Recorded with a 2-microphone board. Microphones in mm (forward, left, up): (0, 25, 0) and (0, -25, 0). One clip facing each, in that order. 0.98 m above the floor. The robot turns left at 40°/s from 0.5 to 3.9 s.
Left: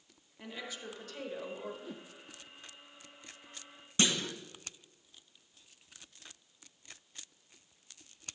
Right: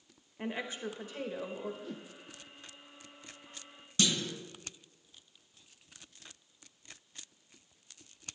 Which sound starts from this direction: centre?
A whoosh, at 1.8 s.